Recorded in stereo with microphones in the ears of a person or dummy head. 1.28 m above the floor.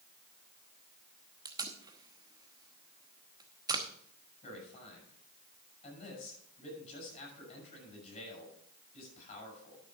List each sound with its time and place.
1.4 s tape being pulled: 20° right (ahead or behind), 1.0 m
4.4 s a man speaking: 35° left (ahead or behind), 7 m